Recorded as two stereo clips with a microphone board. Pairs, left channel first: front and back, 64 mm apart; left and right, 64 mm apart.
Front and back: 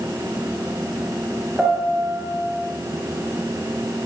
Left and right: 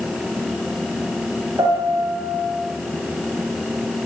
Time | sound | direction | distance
1.6 | a piano | 100° right | 5 m